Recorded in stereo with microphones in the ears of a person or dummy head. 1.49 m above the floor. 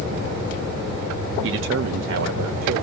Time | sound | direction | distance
1.4 | a man speaking | 65° right (ahead or behind) | 0.7 m